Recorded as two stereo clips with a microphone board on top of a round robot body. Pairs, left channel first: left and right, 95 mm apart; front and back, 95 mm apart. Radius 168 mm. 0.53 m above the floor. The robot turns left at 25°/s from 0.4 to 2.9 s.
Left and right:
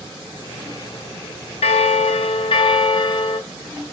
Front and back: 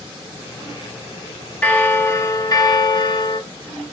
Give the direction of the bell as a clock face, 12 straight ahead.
9 o'clock.